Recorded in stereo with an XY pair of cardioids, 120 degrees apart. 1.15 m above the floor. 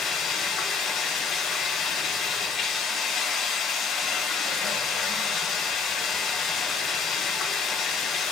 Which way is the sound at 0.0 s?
55° left.